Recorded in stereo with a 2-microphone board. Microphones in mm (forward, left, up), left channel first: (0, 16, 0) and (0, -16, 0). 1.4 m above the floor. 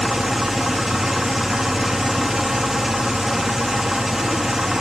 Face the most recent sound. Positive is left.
turn(degrees=-15)  # may be behind; listen again after turning